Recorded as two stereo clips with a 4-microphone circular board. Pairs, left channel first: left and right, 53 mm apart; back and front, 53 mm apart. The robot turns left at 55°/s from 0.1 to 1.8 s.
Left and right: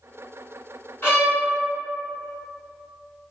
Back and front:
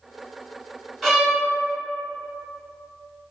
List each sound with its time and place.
1.0 s a violin: 85° left, 1.7 m; by 1.4 s 65° left, 1.7 m